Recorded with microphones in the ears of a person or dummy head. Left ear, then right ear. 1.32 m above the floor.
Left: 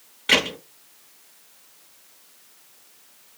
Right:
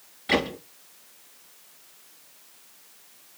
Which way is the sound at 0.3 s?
25° left (ahead or behind).